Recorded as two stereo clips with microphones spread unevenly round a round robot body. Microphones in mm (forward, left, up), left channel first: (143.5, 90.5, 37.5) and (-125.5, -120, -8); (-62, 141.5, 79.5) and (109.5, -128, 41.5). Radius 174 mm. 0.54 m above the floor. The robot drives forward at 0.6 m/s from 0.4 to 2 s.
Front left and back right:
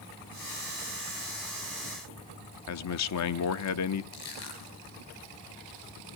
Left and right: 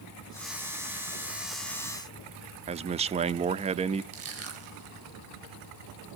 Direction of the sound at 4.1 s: 10° right.